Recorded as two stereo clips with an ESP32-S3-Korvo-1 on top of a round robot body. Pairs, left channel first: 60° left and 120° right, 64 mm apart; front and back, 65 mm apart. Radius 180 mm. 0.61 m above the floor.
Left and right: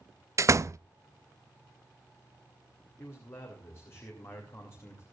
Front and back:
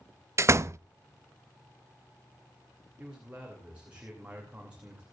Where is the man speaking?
110° left, 2.5 m.